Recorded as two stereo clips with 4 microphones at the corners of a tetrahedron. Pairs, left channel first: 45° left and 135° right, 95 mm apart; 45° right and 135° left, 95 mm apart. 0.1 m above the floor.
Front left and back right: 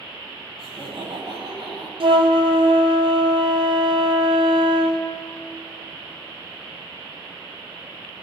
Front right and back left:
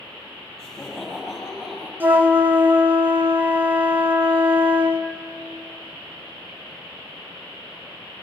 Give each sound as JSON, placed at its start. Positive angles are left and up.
{"t": 0.6, "sound": "laughter", "azimuth_deg": -130, "distance_m": 5.0}
{"t": 2.0, "sound": "a flute", "azimuth_deg": -155, "distance_m": 0.8}